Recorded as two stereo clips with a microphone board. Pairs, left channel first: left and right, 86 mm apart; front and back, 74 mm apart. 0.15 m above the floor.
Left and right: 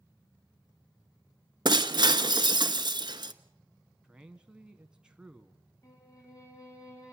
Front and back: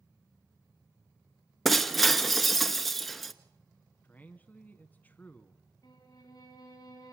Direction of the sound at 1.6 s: 90° right.